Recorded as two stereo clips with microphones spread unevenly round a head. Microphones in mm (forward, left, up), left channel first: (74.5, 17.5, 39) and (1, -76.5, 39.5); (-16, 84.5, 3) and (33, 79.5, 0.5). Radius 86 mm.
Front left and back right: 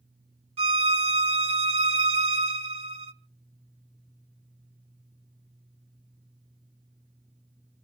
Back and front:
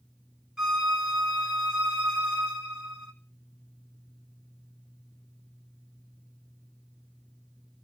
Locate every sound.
0.6 s a violin: 90° right, 1.6 m